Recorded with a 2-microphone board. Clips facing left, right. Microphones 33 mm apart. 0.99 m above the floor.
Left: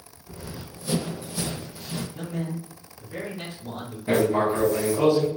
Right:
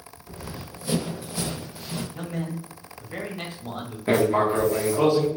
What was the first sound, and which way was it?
Running footsteps, 40° right (ahead or behind).